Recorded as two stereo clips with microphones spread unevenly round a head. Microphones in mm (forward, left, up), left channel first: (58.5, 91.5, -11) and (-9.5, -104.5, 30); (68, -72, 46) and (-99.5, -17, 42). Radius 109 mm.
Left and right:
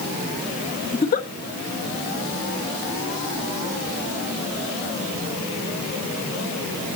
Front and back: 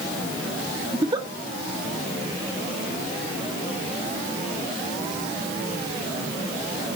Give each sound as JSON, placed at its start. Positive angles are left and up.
{"t": 0.9, "sound": "a giggle", "azimuth_deg": 110, "distance_m": 1.1}